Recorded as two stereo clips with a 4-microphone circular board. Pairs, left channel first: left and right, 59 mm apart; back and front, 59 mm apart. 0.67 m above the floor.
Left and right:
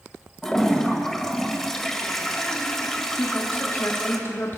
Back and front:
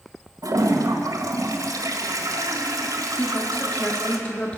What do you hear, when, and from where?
0.4 s a toilet flushing: 10° left, 1.6 m
3.2 s a woman speaking: 125° left, 1.4 m